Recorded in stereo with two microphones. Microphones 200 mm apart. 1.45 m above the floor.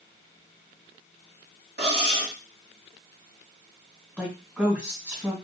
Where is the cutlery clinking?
55° right (ahead or behind), 1.3 m.